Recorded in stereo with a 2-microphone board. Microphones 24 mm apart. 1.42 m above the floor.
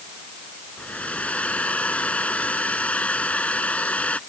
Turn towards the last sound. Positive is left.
turn(degrees=65)  # may be behind; listen again after turning